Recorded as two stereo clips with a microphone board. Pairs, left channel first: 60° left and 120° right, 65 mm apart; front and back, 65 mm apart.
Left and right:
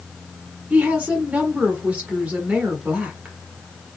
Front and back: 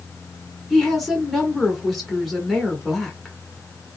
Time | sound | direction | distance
0.7 | a woman speaking | 85° right | 1.3 m